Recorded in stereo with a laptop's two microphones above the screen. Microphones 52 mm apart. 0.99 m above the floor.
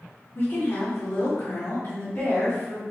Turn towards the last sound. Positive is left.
turn(degrees=35)  # may be behind; listen again after turning